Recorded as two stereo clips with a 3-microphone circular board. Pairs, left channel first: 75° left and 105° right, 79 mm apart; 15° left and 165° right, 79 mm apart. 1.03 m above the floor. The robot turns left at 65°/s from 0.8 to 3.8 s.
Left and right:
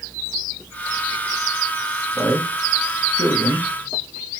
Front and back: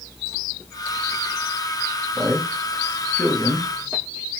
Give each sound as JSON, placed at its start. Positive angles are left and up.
{"t": 2.1, "sound": "a man speaking", "azimuth_deg": 160, "distance_m": 1.0}